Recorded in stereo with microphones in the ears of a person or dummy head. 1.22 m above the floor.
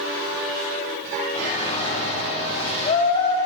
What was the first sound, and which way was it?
A shout, 35° left (ahead or behind).